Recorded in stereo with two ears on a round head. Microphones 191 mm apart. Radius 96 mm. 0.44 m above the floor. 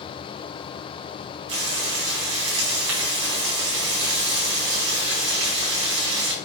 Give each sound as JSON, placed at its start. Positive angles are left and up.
{"t": 1.5, "sound": "frying", "side_deg": -65, "distance_m": 4.0}